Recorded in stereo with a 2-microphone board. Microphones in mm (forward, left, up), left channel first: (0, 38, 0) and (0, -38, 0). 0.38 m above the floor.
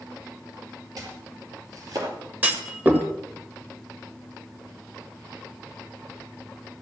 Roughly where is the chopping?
Right.